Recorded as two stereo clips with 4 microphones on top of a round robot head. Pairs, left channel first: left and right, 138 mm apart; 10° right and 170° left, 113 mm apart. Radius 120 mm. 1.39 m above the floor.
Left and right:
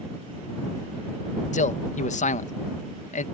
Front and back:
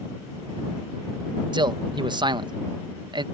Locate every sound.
1.5 s a man speaking: 125° left